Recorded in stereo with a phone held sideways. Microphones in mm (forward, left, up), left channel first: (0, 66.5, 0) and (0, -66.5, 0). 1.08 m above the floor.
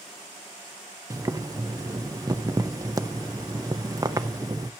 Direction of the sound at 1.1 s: 25° right (ahead or behind).